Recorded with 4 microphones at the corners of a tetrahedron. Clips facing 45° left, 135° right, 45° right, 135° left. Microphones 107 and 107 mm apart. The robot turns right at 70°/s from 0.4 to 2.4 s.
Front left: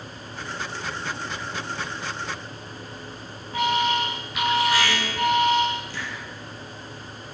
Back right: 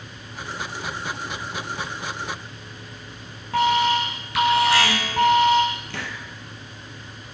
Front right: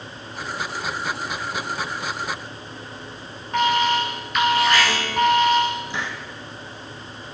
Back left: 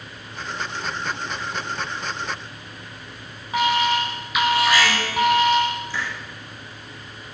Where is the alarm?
140° right, 8 m.